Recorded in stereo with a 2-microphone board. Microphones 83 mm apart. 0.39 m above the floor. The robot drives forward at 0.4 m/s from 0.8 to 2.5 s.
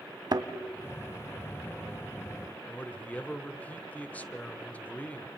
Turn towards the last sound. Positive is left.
turn(degrees=20)  # may be behind; listen again after turning